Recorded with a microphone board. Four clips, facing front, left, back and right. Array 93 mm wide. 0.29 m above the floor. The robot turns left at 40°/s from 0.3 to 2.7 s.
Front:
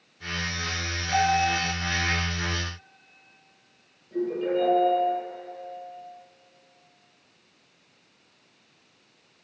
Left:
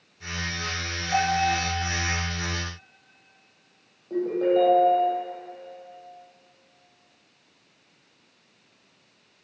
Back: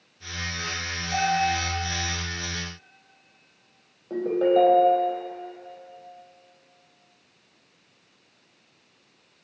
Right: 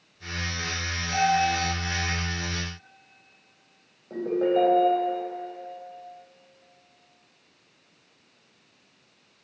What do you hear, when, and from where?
1.1 s a bell: 110° left, 5.5 m; by 1.6 s 95° left, 5.5 m
4.1 s a ringtone: 175° right, 4 m